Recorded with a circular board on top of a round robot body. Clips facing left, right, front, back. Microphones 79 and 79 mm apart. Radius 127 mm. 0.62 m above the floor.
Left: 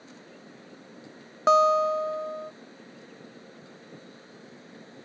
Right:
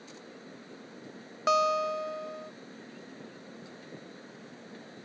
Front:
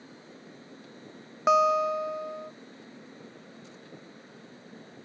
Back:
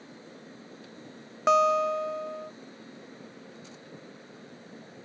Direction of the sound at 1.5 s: 80° left.